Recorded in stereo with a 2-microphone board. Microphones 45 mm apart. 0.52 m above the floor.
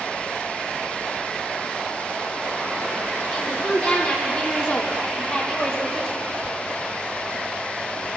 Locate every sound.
3.3 s a woman speaking: 25° left (ahead or behind), 2 m; by 6.2 s 15° left (ahead or behind), 2 m